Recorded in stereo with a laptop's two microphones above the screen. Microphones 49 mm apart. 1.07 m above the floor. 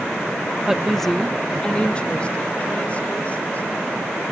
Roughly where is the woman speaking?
Centre.